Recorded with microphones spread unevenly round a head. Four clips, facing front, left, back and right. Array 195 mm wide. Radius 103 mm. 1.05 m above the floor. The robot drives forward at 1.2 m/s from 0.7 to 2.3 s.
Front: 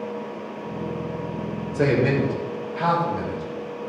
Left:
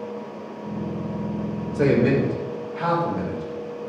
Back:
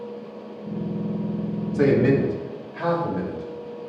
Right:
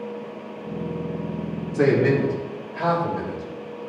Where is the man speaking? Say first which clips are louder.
Even, back 2 dB; 135° right, 2.5 m; by 3.4 s 145° right, 3 m.